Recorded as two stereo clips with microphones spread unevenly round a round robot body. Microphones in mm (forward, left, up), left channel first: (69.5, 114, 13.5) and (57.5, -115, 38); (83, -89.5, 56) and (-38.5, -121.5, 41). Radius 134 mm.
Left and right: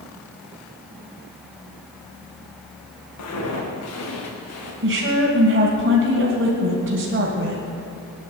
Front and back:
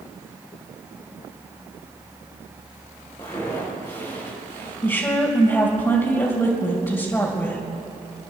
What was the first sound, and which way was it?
Footsteps, 85° left.